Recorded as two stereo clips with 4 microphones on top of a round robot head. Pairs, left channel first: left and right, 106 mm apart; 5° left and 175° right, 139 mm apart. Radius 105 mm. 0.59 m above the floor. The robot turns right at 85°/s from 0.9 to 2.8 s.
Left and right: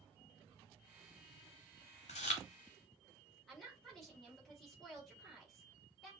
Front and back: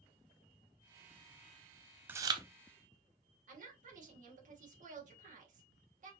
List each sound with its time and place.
2.1 s chewing: 110° left, 0.6 m; by 2.4 s 140° left, 0.6 m
3.5 s a woman speaking: straight behind, 2 m